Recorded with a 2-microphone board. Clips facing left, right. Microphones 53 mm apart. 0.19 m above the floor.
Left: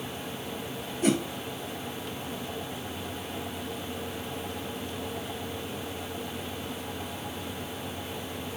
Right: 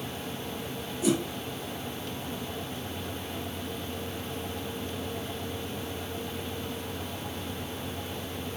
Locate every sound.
1.0 s a whoosh: 55° left (ahead or behind), 1.8 m